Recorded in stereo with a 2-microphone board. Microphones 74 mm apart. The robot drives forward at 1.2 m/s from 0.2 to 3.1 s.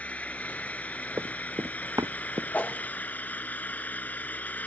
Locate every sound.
0.0 s an engine running: 20° left (ahead or behind); by 4.7 s 25° left (ahead or behind)
1.2 s running footsteps: 45° right (ahead or behind)
2.5 s a whoosh: 25° left (ahead or behind); by 2.8 s 20° left (ahead or behind)